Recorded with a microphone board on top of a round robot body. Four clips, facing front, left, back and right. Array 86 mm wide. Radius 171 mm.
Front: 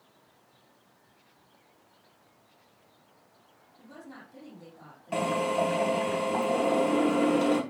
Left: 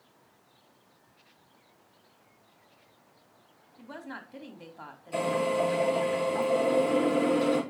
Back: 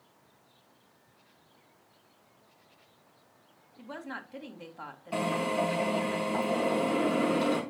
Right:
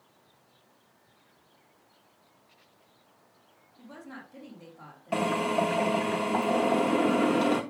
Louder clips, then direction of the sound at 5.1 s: Even, front 2 dB; 70° right.